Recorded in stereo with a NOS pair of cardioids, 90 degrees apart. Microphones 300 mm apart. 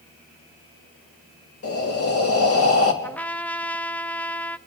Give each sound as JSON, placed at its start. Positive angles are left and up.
{"t": 1.6, "sound": "breathing", "azimuth_deg": 50, "distance_m": 3.5}
{"t": 3.0, "sound": "a trumpet", "azimuth_deg": 5, "distance_m": 0.8}